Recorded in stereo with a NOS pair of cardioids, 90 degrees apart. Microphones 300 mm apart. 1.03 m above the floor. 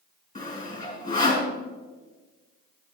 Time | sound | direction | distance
0.3 | sawing | 25° left | 5 m